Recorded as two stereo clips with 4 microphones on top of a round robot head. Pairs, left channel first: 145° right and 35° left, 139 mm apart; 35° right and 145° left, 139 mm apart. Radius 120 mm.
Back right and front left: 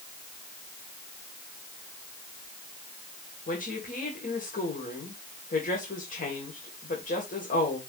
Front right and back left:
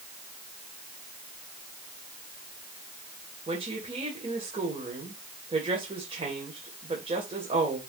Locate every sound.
3.5 s a woman speaking: 165° right, 3 m